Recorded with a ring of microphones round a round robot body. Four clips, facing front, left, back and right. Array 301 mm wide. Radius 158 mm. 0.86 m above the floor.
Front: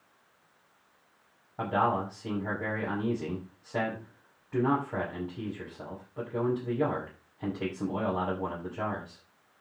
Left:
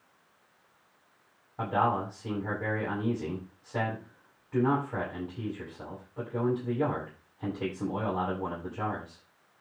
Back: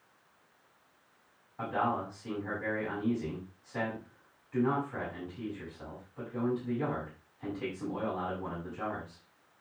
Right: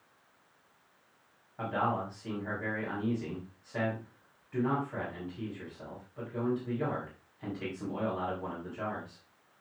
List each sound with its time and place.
1.6 s a man speaking: 25° left, 6 m